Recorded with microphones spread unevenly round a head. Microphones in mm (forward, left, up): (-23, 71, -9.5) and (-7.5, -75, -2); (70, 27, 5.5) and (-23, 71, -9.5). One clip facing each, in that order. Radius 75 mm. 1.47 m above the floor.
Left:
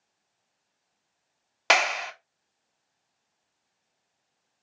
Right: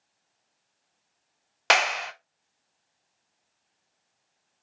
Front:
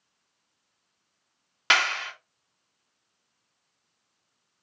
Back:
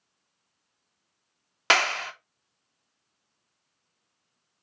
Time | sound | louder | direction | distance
1.7 | a clap | even, back 1 dB | 170° right | 0.6 m